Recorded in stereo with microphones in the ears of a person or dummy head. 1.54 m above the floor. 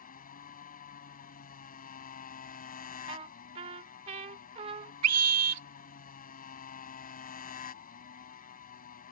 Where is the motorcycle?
45° left (ahead or behind).